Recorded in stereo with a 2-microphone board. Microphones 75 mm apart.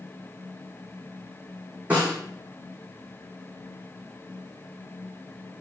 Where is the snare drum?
20° right (ahead or behind), 2.5 m.